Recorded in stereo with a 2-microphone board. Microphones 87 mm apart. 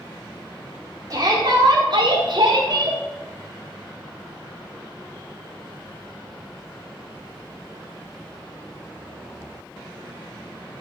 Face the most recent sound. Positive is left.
turn(degrees=-55)  # may be behind; listen again after turning